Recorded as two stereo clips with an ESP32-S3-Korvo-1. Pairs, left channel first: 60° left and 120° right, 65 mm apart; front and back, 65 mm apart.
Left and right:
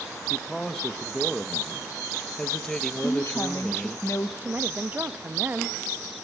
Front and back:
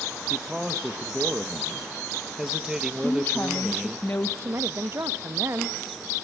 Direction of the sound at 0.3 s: 120° left.